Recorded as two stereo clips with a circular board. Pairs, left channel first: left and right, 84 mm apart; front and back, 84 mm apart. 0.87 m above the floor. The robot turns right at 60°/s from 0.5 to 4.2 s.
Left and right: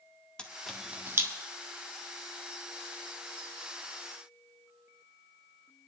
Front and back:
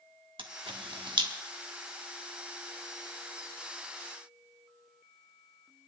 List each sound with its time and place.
0.4 s a camera shutter: 170° left, 1.2 m; by 1.3 s 145° right, 1.2 m